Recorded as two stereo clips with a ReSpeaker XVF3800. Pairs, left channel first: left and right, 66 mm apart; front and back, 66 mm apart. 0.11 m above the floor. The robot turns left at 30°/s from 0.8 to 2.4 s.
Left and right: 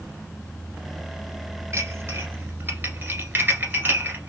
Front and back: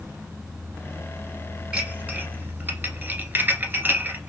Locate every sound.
1.7 s dishes clattering: 115° right, 1.2 m; by 4.3 s 135° right, 1.2 m